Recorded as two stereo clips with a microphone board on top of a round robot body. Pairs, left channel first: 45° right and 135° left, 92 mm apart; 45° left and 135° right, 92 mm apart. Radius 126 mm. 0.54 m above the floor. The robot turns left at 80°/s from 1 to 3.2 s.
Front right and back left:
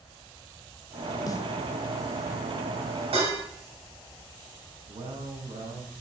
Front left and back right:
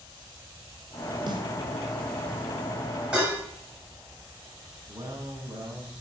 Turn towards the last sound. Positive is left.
turn(degrees=160)